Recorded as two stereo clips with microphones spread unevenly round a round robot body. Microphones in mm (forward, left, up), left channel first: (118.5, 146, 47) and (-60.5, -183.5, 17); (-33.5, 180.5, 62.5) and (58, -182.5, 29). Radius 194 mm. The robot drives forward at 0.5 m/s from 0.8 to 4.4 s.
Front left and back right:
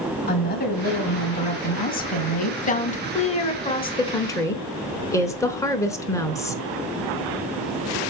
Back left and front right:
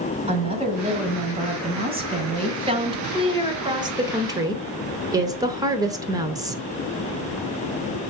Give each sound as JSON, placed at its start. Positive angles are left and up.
{"t": 0.3, "sound": "a woman speaking", "azimuth_deg": -5, "distance_m": 2.5}